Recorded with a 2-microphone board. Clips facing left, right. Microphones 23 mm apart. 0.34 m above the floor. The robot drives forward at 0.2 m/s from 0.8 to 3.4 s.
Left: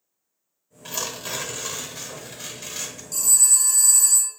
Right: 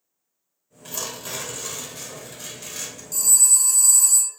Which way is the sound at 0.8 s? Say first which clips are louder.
Left 2 dB; 20° left (ahead or behind).